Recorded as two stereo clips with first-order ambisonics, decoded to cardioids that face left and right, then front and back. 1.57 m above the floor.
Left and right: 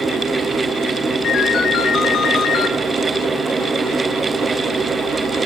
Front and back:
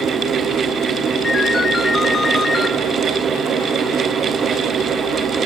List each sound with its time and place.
1.2 s a ringtone: 65° left, 0.9 m